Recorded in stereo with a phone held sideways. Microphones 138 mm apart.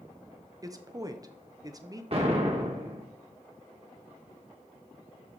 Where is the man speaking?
25° right (ahead or behind), 1.0 m.